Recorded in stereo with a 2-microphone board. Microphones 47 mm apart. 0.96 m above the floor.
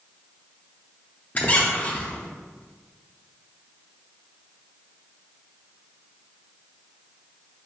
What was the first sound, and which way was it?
A squeak, 30° left (ahead or behind).